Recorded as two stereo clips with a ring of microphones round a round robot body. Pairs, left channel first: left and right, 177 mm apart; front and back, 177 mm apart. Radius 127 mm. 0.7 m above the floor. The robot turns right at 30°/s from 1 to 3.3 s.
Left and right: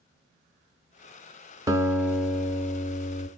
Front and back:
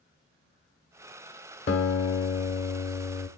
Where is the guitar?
20° right, 1.2 m; by 3.3 s 25° left, 1.2 m.